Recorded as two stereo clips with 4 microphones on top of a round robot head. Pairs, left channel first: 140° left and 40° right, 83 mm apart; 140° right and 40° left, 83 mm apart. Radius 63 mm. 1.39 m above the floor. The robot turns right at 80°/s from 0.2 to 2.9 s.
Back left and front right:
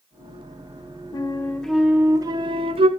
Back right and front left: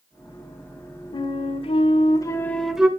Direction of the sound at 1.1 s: 175° right.